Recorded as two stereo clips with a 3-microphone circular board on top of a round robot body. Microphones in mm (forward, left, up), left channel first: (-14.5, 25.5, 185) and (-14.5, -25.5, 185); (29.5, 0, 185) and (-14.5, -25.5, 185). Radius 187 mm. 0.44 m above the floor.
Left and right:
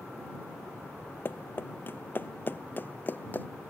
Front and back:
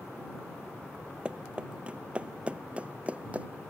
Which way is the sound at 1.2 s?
140° left.